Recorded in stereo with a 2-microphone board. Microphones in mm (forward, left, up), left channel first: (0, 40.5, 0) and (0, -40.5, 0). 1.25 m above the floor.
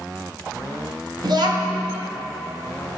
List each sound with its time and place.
1.2 s a child speaking: 60° right (ahead or behind), 0.9 m